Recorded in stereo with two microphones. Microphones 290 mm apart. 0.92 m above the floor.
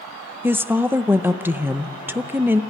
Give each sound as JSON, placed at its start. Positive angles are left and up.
{"t": 0.4, "sound": "a woman speaking", "side_deg": -5, "distance_m": 0.7}